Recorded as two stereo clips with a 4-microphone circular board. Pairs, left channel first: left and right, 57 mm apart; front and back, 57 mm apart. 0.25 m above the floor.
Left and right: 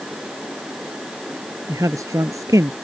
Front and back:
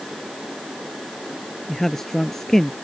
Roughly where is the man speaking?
Right.